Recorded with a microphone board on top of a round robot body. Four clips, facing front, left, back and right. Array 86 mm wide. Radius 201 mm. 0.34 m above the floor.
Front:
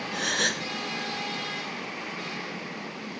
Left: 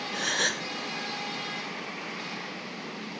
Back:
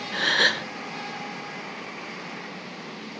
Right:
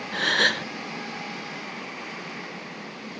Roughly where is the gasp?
Behind right.